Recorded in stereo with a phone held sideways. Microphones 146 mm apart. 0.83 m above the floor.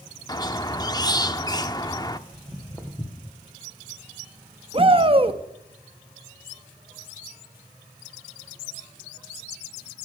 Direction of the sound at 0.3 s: 25° left (ahead or behind).